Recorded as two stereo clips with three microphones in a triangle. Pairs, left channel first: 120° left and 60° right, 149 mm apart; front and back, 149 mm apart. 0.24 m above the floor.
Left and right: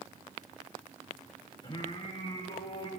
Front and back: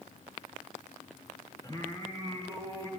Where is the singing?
65° left, 4 m.